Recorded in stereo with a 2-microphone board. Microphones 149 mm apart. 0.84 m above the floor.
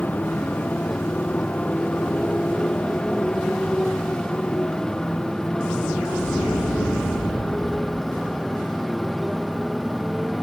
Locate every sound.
0.0 s a motorcycle: 10° left (ahead or behind); by 10.4 s centre (ahead or behind)